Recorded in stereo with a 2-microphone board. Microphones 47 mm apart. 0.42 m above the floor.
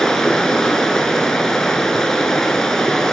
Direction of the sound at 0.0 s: 10° left (ahead or behind).